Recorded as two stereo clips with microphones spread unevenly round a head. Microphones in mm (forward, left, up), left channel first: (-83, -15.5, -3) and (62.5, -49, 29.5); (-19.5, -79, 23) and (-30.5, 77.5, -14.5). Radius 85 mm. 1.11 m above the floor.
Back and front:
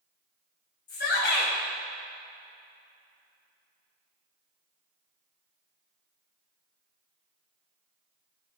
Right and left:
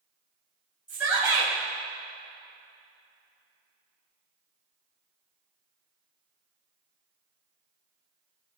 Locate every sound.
0.9 s a shout: 175° left, 4 m